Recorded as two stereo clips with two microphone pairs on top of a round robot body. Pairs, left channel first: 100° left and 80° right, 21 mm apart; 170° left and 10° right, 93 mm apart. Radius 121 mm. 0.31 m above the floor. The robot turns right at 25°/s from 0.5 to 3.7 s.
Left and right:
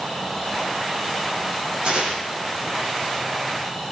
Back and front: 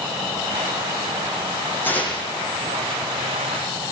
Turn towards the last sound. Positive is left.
turn(degrees=-75)